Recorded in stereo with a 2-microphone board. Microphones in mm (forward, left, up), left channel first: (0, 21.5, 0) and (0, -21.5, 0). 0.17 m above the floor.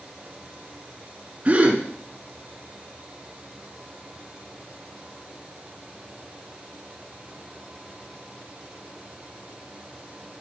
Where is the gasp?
30° right (ahead or behind), 2.5 m.